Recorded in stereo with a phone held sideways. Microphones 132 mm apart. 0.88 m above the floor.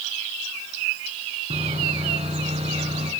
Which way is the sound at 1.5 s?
50° right (ahead or behind).